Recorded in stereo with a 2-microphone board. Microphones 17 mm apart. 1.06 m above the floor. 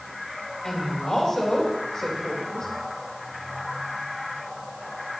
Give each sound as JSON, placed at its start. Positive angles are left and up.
{"t": 0.6, "sound": "a woman speaking", "side_deg": 45, "distance_m": 4.0}